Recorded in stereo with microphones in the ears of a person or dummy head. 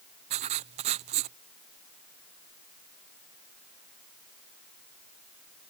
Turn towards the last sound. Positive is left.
turn(degrees=-30)  # may be behind; listen again after turning